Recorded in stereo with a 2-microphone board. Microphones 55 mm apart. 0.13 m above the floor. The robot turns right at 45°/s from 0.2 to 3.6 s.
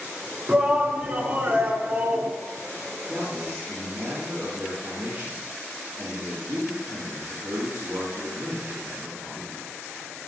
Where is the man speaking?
35° right (ahead or behind), 4 m; by 9.8 s 55° right (ahead or behind), 4 m.